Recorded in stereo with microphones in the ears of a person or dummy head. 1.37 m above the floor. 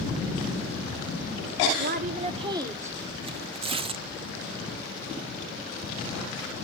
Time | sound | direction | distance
1.8 | a woman speaking | 50° right (ahead or behind) | 0.9 m
3.2 | tearing paper | 25° right (ahead or behind) | 0.5 m